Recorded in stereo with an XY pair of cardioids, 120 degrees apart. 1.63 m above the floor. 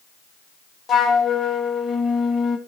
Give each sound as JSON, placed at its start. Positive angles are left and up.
{"t": 0.9, "sound": "a flute", "azimuth_deg": 45, "distance_m": 2.5}